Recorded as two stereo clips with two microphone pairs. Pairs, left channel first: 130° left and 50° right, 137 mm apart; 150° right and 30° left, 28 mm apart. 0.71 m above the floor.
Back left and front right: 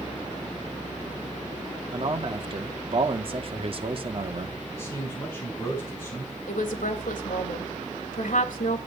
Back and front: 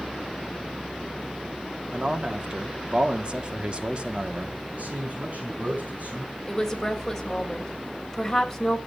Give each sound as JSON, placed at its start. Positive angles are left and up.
{"t": 1.9, "sound": "a man speaking", "azimuth_deg": -20, "distance_m": 1.8}
{"t": 4.7, "sound": "a man speaking", "azimuth_deg": 60, "distance_m": 5.5}
{"t": 6.5, "sound": "a woman speaking", "azimuth_deg": 125, "distance_m": 3.0}